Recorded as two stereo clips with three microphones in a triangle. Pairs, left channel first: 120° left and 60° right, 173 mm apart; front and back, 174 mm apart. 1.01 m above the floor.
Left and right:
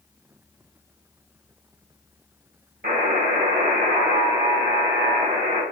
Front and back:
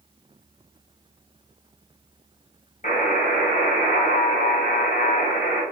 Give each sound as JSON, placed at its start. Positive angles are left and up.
{"t": 2.8, "sound": "a buzzer", "azimuth_deg": -45, "distance_m": 2.0}